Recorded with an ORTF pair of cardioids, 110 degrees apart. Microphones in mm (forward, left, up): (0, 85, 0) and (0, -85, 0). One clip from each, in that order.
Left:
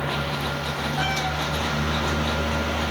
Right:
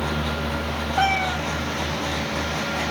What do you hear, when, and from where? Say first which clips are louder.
1.0 s a cat meowing: right 6 dB; 70° right, 2 m